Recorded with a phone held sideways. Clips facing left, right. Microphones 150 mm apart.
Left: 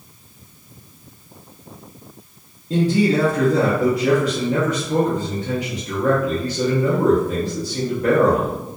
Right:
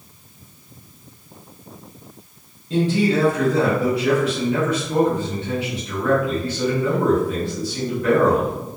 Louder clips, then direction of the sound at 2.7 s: Left 1 dB; 40° left (ahead or behind).